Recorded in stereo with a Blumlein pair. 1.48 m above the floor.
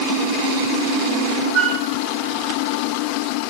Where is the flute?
25° right, 9 m.